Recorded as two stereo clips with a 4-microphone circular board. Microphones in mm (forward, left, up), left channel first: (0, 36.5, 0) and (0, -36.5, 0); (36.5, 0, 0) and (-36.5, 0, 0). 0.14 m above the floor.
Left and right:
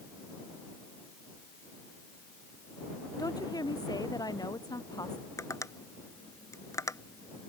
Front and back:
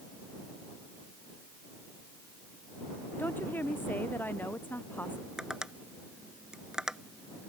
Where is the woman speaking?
65° left.